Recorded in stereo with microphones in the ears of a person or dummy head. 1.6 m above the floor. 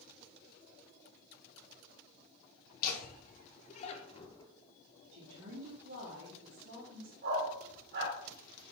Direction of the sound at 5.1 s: 70° right (ahead or behind).